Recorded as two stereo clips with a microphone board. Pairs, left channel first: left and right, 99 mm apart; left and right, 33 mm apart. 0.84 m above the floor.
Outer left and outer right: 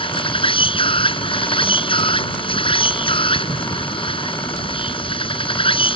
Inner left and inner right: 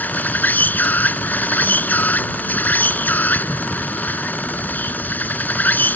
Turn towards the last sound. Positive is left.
turn(degrees=65)  # may be behind; listen again after turning